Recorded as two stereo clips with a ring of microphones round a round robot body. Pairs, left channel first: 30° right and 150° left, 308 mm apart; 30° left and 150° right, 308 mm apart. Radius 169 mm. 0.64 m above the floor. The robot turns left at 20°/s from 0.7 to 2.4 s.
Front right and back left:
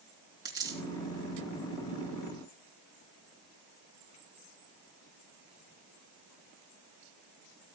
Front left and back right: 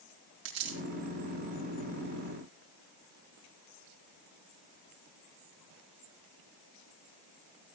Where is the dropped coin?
130° right, 3.5 m; by 0.8 s 135° right, 3.5 m.